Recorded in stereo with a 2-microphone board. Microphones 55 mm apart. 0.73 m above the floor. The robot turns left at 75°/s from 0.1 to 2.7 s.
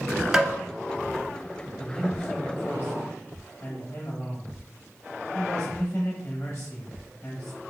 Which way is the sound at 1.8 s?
160° right.